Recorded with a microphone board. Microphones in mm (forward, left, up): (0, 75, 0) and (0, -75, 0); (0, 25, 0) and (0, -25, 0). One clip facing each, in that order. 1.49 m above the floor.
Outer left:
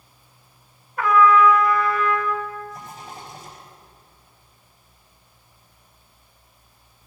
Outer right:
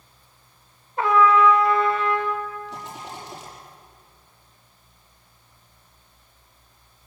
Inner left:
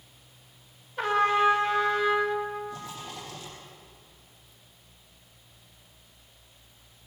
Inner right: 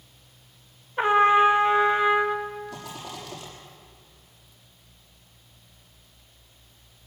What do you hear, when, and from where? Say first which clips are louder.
1.0 s a trumpet: outer left 1 dB, inner right 5 dB; 25° right (ahead or behind), 1.6 m
2.7 s a rattle: outer right 2 dB, inner right 1 dB; 80° right, 7.5 m